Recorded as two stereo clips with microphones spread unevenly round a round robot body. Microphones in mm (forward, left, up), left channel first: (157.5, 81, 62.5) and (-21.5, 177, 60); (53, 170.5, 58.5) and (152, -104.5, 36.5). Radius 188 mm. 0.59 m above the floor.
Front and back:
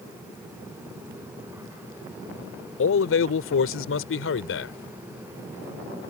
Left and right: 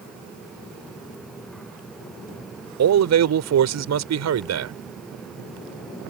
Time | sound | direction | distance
2.8 | a man speaking | 45° right | ?